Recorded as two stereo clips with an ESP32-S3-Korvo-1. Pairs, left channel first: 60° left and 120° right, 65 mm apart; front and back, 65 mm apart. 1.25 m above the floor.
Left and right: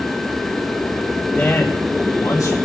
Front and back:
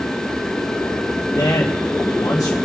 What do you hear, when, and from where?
1.4 s a man speaking: 10° right, 1.2 m; by 2.6 s 35° left, 1.9 m